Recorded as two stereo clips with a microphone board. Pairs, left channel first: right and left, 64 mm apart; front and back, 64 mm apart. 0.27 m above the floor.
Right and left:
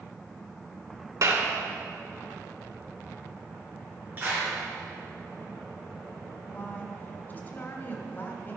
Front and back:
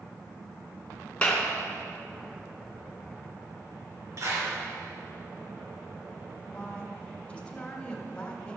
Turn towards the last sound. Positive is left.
turn(degrees=-60)